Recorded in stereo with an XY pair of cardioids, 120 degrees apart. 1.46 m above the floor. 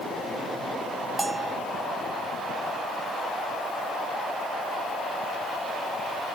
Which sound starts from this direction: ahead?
A bell, at 1.2 s.